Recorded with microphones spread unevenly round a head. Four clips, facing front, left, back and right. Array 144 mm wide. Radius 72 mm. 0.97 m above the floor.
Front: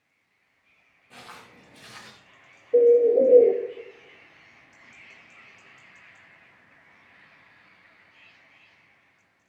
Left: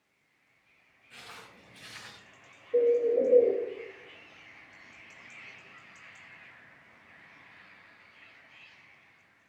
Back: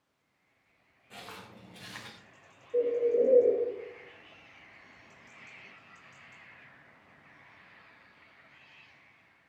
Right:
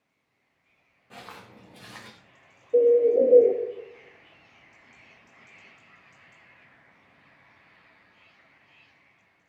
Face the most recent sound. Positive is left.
turn(degrees=-30)